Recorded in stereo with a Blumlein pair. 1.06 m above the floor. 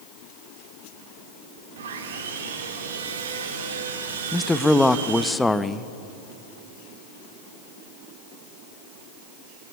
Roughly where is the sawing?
Ahead right.